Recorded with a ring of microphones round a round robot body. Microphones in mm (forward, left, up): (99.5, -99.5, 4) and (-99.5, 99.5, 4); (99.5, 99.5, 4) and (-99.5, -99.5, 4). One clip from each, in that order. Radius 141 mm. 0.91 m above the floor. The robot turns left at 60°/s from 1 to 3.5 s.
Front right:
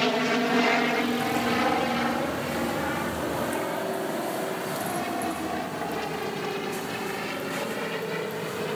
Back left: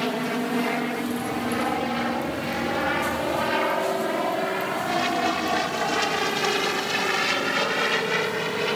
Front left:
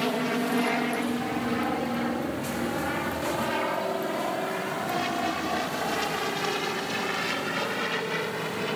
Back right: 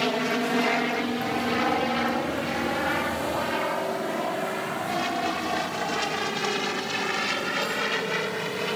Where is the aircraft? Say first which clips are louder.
Front right 2 dB, back right 2 dB; 95° right; by 8.8 s 155° left.